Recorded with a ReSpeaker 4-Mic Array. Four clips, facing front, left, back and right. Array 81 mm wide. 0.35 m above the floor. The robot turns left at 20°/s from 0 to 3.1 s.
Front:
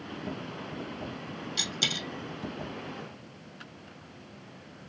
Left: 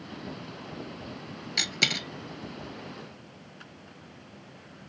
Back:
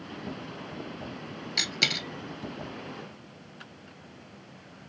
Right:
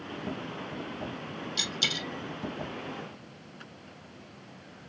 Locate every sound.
1.6 s a dropped coin: 130° left, 0.9 m; by 2.1 s 120° left, 0.9 m